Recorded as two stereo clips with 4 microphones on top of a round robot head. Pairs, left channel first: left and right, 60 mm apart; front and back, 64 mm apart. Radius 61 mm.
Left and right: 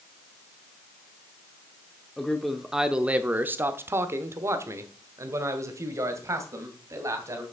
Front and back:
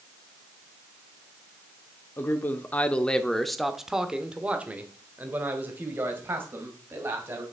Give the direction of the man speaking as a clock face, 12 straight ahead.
11 o'clock.